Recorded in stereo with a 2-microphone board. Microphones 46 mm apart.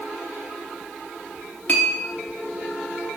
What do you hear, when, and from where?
1.7 s a clink: 35° left (ahead or behind), 0.8 m